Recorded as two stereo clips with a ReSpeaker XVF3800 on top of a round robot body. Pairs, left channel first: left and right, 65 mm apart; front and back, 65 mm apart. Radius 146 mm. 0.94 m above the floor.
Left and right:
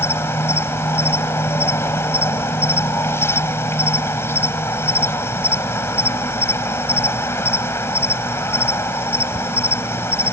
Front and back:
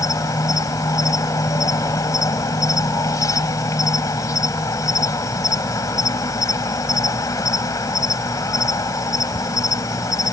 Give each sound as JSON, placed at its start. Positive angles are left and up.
{"t": 0.0, "sound": "an insect", "azimuth_deg": 40}